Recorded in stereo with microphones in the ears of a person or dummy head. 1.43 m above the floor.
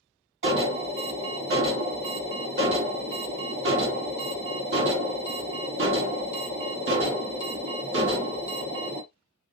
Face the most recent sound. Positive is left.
turn(degrees=-65)  # may be behind; listen again after turning